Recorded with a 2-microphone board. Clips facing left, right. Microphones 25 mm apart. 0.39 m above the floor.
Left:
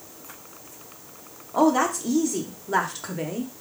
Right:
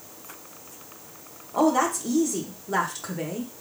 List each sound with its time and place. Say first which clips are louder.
1.5 s a woman speaking: left 1 dB; 10° left (ahead or behind), 0.8 m